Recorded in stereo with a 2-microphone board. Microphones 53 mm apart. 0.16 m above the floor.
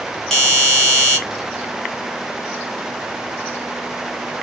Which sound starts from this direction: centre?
A doorbell, at 0.3 s.